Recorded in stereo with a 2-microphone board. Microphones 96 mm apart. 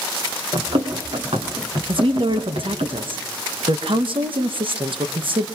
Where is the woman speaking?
65° right (ahead or behind), 1.7 m.